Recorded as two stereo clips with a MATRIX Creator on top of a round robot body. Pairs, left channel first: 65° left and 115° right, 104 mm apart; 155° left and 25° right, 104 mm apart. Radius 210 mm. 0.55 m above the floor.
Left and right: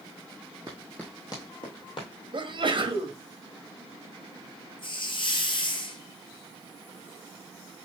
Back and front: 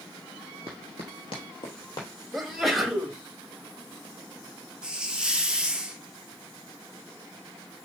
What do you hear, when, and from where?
0.7 s running footsteps: 155° right, 0.5 m; by 2.1 s 105° left, 1.4 m
2.3 s a sneeze: 110° right, 1.4 m
4.8 s a hiss: 55° left, 1.2 m